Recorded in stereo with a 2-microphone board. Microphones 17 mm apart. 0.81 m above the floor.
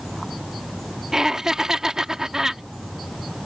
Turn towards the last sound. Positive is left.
turn(degrees=-35)  # may be behind; listen again after turning